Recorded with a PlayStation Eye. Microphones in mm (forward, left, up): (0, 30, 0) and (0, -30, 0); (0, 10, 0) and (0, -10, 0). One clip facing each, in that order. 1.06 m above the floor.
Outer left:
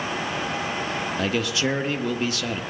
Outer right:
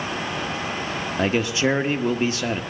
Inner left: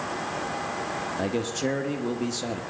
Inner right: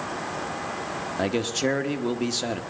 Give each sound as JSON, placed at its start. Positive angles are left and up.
{"t": 1.2, "sound": "a man speaking", "side_deg": -30, "distance_m": 1.1}